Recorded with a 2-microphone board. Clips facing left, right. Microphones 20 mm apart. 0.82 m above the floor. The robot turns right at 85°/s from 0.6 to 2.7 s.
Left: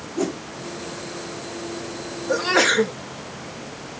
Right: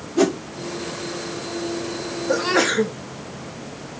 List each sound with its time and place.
0.2 s a whoosh: 55° right (ahead or behind), 0.9 m
2.3 s a sneeze: 15° right, 0.9 m; by 3.0 s 20° left, 0.9 m